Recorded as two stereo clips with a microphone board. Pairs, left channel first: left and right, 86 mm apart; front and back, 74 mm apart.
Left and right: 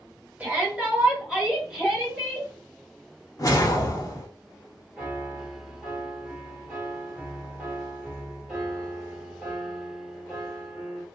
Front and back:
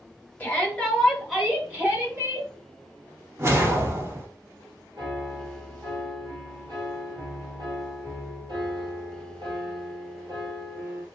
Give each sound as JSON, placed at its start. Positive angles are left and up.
{"t": 0.4, "sound": "a shout", "azimuth_deg": -45, "distance_m": 1.4}
{"t": 3.4, "sound": "a whoosh", "azimuth_deg": 130, "distance_m": 0.7}
{"t": 5.0, "sound": "a piano", "azimuth_deg": -175, "distance_m": 1.3}